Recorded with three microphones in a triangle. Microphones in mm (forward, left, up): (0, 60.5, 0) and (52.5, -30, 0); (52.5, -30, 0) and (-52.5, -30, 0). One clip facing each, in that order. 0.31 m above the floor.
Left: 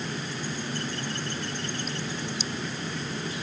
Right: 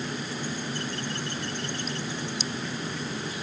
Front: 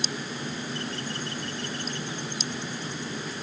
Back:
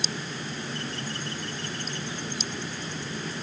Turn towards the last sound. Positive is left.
No sound to turn to.